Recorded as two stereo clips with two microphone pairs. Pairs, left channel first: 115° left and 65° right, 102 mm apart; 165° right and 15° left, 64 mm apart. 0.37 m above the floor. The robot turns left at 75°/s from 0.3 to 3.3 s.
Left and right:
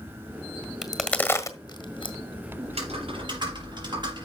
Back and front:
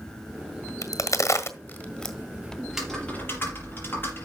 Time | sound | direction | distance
0.8 | a crack | 155° right | 1.6 m
2.6 | typing on a keyboard | 60° right | 5 m